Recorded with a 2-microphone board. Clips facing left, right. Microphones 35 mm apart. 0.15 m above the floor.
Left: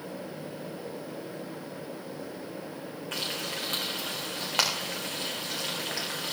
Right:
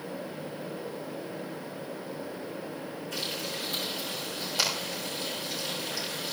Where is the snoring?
I don't hear snoring.